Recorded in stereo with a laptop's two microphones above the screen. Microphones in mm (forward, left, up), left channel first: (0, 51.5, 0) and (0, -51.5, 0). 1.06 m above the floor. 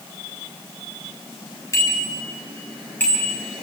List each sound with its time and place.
1.7 s a bicycle bell: 30° left (ahead or behind), 5.5 m; by 3.4 s 15° left (ahead or behind), 5 m